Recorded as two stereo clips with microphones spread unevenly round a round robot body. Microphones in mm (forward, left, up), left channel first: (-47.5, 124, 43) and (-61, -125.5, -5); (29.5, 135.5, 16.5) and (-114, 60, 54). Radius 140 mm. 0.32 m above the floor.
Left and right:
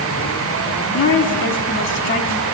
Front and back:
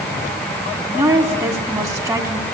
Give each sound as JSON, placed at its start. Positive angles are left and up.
{"t": 0.9, "sound": "a woman speaking", "azimuth_deg": 130, "distance_m": 3.5}